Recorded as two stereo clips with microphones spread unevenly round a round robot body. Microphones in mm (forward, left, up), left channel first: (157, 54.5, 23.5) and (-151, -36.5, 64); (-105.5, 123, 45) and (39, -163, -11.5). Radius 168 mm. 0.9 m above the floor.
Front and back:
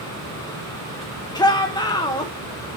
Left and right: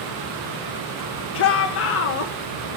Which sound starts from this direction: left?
A shout, at 1.4 s.